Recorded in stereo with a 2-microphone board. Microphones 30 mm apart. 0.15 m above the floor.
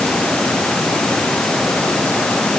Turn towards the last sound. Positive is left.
No sound to turn to.